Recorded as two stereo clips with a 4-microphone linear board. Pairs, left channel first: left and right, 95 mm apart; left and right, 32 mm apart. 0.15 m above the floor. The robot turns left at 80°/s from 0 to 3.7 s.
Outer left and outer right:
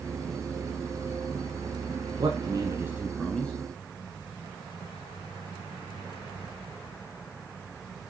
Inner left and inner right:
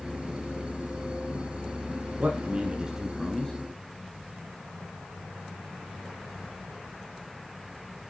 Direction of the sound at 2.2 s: 50° right (ahead or behind).